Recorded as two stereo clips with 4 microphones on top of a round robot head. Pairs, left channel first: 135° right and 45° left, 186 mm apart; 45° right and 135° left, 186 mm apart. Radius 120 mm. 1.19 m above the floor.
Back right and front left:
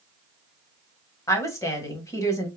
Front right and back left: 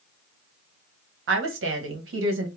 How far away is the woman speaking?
About 1.2 m.